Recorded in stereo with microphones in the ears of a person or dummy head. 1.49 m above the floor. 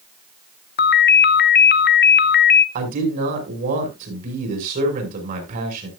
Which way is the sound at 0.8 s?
50° left (ahead or behind).